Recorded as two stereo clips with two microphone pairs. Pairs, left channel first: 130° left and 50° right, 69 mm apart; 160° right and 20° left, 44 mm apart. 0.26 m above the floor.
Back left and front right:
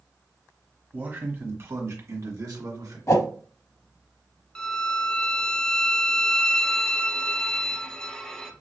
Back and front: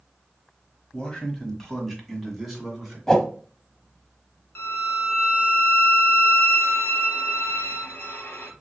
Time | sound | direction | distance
0.9 | a man speaking | 100° right | 1.3 m
3.1 | a whoosh | 130° left | 0.6 m
4.5 | a violin | 155° right | 0.8 m